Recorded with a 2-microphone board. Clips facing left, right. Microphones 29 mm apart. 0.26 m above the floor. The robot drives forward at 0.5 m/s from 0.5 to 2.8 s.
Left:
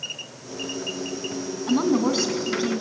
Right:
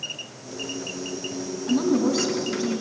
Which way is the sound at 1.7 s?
35° left (ahead or behind).